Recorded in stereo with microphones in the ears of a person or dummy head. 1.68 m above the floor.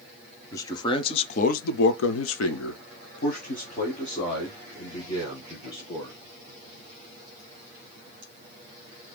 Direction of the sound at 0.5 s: 20° left (ahead or behind).